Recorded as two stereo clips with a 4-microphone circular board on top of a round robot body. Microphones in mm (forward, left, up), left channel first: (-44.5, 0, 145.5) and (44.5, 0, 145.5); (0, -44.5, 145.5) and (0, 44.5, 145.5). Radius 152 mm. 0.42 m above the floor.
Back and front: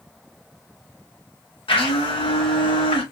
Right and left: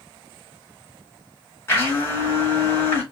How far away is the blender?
About 2.5 m.